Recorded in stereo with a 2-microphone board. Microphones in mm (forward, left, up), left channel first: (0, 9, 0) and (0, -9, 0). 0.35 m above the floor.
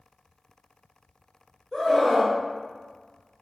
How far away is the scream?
About 0.9 m.